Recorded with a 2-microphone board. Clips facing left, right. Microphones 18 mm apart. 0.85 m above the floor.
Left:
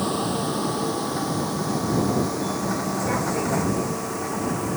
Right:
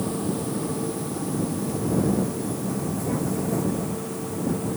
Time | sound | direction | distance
0.0 | a vehicle | 35° left (ahead or behind) | ?